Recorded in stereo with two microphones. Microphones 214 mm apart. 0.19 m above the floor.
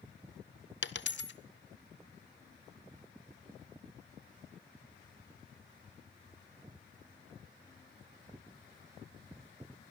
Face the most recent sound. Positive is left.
turn(degrees=65)  # may be behind; listen again after turning